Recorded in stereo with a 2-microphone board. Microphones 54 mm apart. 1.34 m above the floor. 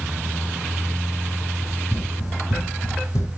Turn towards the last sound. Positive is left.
turn(degrees=70)  # may be behind; listen again after turning